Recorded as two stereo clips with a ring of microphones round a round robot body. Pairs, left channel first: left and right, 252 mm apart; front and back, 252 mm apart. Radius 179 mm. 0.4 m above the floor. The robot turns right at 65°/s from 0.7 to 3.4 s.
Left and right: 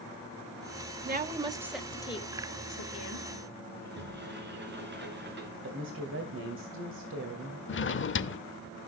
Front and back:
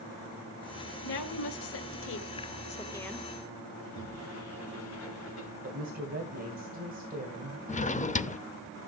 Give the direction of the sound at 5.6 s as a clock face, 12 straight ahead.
4 o'clock.